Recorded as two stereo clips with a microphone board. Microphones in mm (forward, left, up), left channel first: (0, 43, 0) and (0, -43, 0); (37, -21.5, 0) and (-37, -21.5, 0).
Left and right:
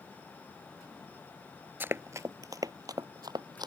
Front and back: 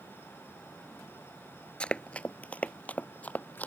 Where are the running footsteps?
60° right; by 3.7 s 65° right.